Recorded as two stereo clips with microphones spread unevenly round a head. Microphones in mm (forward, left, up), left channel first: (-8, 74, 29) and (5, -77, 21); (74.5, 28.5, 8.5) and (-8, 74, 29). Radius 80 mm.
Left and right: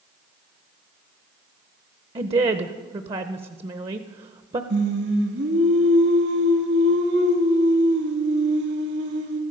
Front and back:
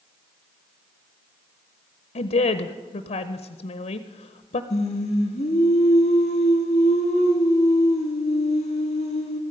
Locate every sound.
2.1 s a woman speaking: 30° right, 0.7 m
4.7 s singing: 70° right, 2 m